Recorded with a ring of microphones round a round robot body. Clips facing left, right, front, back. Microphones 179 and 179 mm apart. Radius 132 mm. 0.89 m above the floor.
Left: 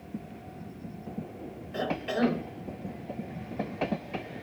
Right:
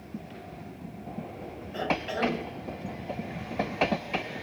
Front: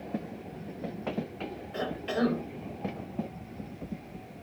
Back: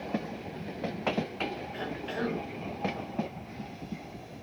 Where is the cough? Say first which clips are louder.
Left 1 dB, front 9 dB; 40° left, 3.5 m.